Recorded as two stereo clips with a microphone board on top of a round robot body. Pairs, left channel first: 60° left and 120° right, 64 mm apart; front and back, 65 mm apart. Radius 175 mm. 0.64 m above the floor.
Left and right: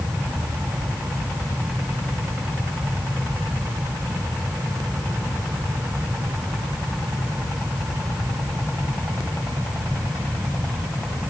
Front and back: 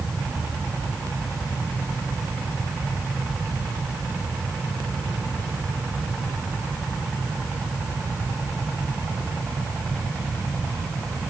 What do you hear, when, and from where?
Only background noise.